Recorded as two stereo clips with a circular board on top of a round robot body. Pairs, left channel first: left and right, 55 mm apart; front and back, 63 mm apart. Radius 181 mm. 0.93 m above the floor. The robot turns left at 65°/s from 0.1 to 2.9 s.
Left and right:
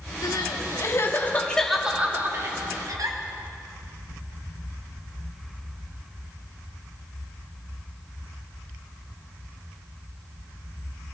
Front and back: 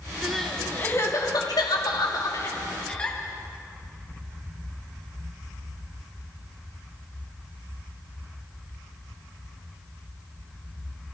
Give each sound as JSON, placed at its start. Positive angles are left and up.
{"t": 0.2, "sound": "crying", "azimuth_deg": 100, "distance_m": 2.5}